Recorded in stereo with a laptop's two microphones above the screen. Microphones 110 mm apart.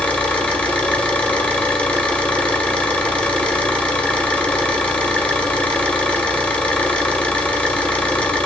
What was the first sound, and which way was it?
An engine running, 10° left (ahead or behind).